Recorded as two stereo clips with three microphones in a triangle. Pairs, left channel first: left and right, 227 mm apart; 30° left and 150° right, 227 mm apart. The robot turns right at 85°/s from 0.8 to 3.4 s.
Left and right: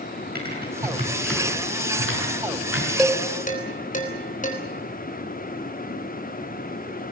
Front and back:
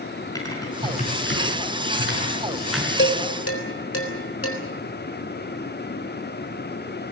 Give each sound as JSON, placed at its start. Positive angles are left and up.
{"t": 0.3, "sound": "typing on a keyboard", "azimuth_deg": -45, "distance_m": 6.5}
{"t": 3.0, "sound": "dishes clattering", "azimuth_deg": 0, "distance_m": 4.0}